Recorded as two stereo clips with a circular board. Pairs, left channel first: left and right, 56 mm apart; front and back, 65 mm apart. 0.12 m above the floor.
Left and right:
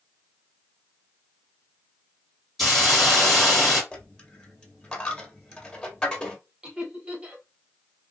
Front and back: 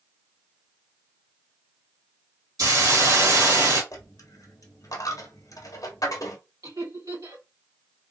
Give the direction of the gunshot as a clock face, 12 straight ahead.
I don't hear a gunshot.